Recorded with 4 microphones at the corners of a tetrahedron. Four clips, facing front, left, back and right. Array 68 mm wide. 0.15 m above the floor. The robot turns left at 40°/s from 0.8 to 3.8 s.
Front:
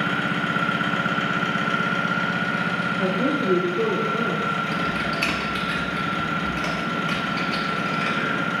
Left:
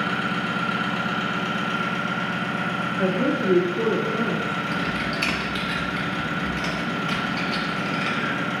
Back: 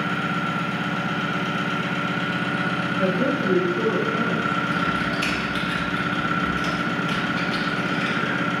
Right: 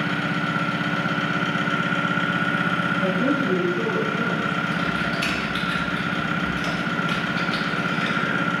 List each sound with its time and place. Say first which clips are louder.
0.0 s an engine running: right 1 dB, front 1 dB; 10° right, 0.8 m; by 8.6 s 130° right, 0.8 m
3.0 s a woman speaking: left 3 dB, back 2 dB; 85° left, 1.4 m; by 4.6 s 50° left, 1.4 m
4.7 s typing on a keyboard: right 2 dB, back 1 dB; 40° left, 1.1 m